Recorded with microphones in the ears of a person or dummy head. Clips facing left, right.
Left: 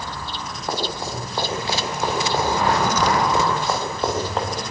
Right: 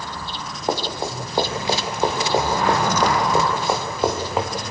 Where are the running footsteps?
25° right (ahead or behind), 7 m; by 4.5 s 10° right (ahead or behind), 6 m.